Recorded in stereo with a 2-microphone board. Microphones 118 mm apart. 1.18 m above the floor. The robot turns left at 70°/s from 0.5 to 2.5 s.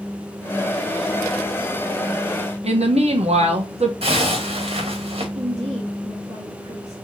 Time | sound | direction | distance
2.6 | a woman speaking | 70° right (ahead or behind) | 0.9 m
4.0 | a zipper | 60° right (ahead or behind) | 1.4 m
5.3 | a woman speaking | 50° right (ahead or behind) | 1.7 m